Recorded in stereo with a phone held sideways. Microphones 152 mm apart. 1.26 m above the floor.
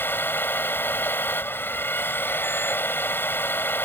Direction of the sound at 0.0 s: 15° left (ahead or behind).